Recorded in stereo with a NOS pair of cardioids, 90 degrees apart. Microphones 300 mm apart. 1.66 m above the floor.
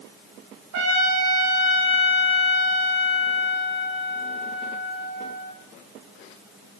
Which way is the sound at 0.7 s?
60° right.